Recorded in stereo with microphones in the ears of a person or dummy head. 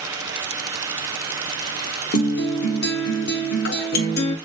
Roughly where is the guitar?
Left.